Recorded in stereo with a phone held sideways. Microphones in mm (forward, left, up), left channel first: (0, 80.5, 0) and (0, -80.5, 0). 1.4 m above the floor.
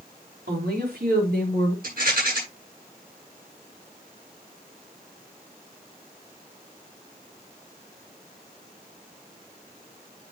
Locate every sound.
0.5 s a woman speaking: 85° right, 4 m; by 1.7 s 80° right, 5 m
1.8 s a rattle: 60° right (ahead or behind), 7.5 m